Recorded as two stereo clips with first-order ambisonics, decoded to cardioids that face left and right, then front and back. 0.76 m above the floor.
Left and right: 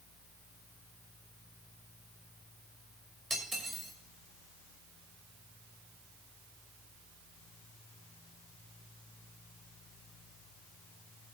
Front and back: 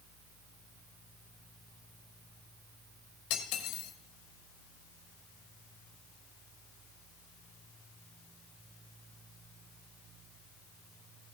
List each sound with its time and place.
3.3 s cutlery clinking: 10° right, 1.9 m